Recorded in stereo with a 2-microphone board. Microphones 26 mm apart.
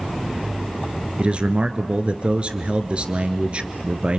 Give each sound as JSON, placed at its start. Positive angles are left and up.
{"t": 1.2, "sound": "a man speaking", "side_deg": -45, "distance_m": 1.6}